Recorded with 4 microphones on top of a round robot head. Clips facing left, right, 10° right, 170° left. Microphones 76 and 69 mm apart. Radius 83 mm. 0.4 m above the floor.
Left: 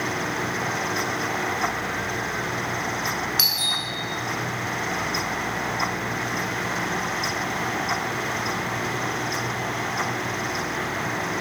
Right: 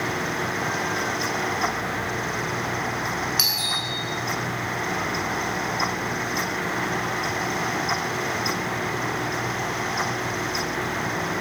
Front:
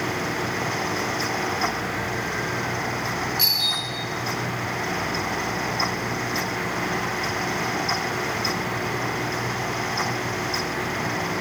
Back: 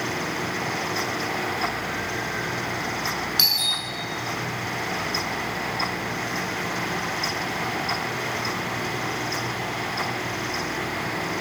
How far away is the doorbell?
About 7 m.